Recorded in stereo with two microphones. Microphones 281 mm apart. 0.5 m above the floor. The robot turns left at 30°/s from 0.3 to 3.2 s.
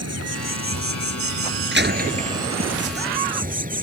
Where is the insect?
65° right; by 3.8 s 150° right.